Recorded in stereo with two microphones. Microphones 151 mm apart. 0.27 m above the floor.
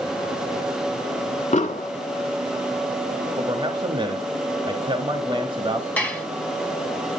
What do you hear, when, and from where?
1.5 s an explosion: 50° left (ahead or behind), 1.1 m
3.4 s a man speaking: 35° right (ahead or behind), 1.0 m
6.0 s dishes clattering: 10° left (ahead or behind), 1.6 m